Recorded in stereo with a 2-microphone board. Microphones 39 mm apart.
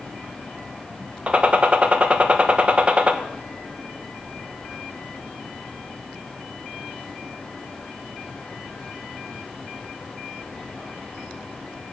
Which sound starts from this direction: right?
A gunshot, at 1.3 s.